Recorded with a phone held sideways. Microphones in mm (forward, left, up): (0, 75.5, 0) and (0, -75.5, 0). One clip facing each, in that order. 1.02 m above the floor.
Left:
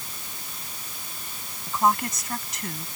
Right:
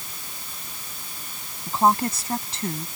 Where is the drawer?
I don't hear a drawer.